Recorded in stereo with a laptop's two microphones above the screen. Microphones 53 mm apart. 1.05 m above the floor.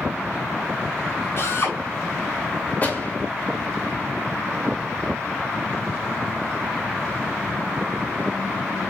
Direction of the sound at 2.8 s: 30° left (ahead or behind).